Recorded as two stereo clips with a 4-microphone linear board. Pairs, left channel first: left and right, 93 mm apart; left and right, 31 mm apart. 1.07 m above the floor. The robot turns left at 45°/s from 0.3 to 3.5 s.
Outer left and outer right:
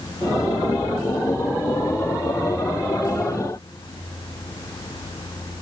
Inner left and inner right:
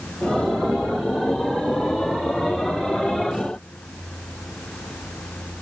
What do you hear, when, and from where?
Only background noise.